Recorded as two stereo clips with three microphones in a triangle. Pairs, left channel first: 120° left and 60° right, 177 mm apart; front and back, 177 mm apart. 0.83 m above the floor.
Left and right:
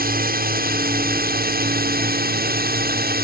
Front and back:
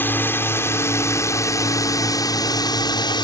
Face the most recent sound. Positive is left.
turn(degrees=-60)